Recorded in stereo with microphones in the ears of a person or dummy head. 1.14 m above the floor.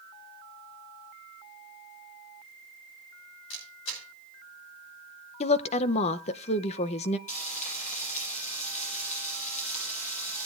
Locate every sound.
3.5 s a camera shutter: 80° left, 3.5 m
5.4 s a woman speaking: 40° left (ahead or behind), 0.6 m
7.3 s frying: 45° left (ahead or behind), 7.5 m